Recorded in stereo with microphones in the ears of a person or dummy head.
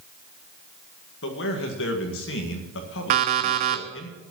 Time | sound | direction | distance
1.2 | a man speaking | 60° left (ahead or behind) | 1.9 m
3.1 | an alarm clock | 45° right (ahead or behind) | 1.5 m